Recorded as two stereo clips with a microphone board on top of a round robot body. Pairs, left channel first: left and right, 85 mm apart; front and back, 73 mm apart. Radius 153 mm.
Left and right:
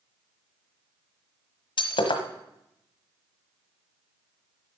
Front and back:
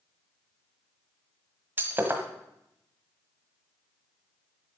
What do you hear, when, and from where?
1.8 s breaking glass: 115° left, 1.4 m